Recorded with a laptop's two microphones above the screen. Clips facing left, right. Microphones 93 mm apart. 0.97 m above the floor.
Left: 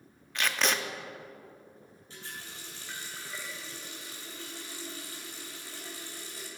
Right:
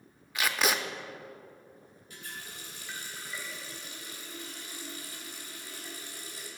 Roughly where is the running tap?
Left.